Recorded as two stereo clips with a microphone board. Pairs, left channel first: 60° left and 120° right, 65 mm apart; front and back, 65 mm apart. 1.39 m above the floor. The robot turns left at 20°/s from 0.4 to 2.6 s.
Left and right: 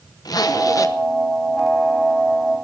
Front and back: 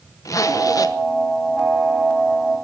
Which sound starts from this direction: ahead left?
A zipper, at 0.2 s.